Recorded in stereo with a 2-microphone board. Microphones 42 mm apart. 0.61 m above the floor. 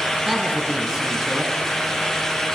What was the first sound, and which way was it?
A woman speaking, 15° right (ahead or behind).